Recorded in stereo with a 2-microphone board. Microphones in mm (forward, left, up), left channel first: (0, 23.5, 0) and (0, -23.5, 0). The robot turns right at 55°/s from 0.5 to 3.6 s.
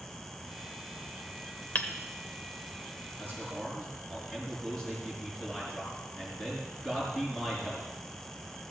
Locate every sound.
1.8 s hammering: 35° left (ahead or behind), 1.1 m
3.2 s a man speaking: 30° left (ahead or behind), 5 m; by 7.9 s 10° left (ahead or behind), 5 m